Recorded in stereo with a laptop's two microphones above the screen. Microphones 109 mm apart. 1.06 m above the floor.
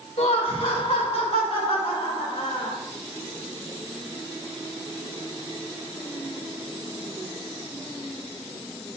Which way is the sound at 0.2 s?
85° left.